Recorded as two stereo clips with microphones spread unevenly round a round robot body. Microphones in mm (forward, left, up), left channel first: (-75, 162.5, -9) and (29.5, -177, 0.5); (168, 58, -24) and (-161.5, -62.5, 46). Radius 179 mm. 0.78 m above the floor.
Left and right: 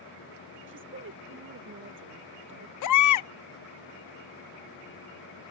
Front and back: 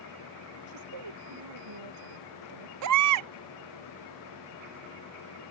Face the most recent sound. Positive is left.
turn(degrees=155)